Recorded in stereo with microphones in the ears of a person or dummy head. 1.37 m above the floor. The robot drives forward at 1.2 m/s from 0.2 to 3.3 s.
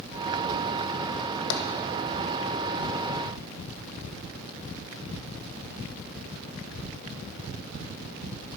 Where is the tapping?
70° left (ahead or behind), 1.2 m; by 1.7 s 65° left (ahead or behind), 1.3 m.